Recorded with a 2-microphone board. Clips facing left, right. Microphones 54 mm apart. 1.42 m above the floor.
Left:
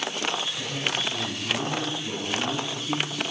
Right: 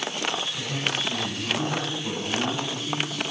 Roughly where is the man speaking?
Right.